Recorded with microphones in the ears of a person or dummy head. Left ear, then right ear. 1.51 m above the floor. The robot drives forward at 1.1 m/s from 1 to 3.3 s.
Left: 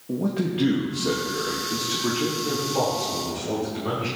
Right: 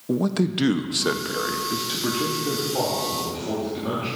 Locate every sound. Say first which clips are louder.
0.1 s a man speaking: right 3 dB; 60° right (ahead or behind), 0.6 m; by 4.1 s 10° right (ahead or behind), 2.5 m